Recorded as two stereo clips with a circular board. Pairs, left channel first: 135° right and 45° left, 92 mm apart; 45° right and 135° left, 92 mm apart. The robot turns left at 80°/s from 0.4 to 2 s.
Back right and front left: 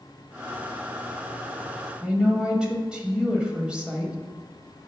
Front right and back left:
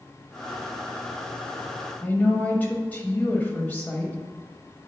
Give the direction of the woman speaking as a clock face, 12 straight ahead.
1 o'clock.